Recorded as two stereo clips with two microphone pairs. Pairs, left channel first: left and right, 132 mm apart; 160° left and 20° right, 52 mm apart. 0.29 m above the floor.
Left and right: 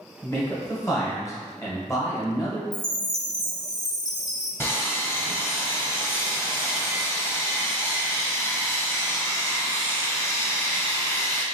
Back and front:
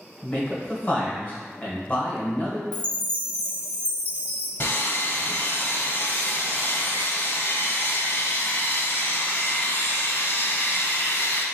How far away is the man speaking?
About 1.1 m.